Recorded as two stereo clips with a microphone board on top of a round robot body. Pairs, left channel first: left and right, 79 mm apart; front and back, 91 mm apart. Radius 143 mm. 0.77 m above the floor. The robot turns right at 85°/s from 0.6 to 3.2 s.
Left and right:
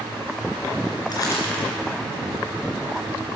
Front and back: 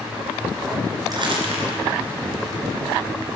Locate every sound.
1.1 s crumpling: 130° left, 2.5 m; by 1.7 s straight behind, 2.5 m